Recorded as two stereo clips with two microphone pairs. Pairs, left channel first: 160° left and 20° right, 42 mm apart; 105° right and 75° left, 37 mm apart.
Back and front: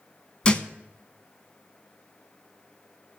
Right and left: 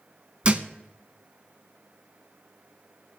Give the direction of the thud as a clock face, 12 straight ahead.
8 o'clock.